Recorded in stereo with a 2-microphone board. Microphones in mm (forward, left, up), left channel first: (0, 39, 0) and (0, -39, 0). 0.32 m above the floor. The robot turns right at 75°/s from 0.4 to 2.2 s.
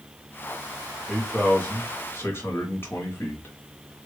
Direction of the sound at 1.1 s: 5° left.